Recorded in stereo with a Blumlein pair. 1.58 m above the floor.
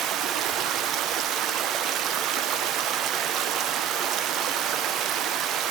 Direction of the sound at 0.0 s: 35° right.